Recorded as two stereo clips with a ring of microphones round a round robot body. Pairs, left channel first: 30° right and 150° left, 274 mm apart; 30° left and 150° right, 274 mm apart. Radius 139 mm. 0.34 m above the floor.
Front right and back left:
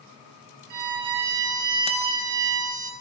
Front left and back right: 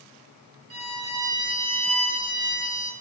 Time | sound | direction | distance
0.7 | a violin | 170° left | 5.5 m